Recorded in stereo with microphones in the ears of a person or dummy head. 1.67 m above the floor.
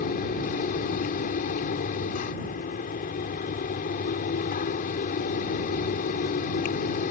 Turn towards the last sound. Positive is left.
turn(degrees=45)  # may be behind; listen again after turning